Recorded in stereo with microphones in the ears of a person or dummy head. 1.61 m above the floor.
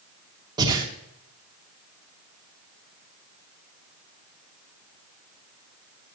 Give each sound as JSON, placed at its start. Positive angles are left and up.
{"t": 0.6, "sound": "breathing", "side_deg": -20, "distance_m": 2.0}